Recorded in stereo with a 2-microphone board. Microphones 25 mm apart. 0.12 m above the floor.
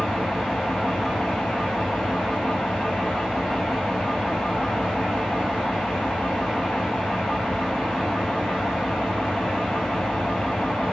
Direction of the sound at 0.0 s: 80° left.